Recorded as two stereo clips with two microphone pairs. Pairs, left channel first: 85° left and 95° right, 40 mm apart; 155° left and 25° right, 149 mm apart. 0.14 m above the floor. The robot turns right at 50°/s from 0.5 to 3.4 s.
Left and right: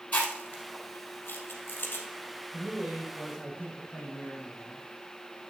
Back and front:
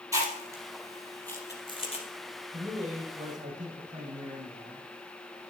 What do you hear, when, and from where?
0.1 s chewing: 40° left, 3 m; by 2.0 s 120° left, 3 m
2.5 s a man speaking: 45° right, 5 m; by 4.8 s straight ahead, 5 m